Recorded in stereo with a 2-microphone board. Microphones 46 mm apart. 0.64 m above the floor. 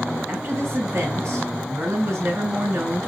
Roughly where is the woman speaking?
Right.